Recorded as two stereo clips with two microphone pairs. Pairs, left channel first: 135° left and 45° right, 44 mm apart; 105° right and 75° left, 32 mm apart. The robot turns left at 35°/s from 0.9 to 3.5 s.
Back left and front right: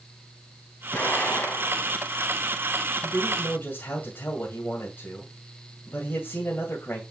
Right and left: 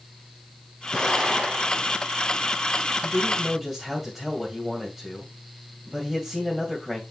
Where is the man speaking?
175° left, 2.5 m; by 7.0 s 155° left, 2.5 m.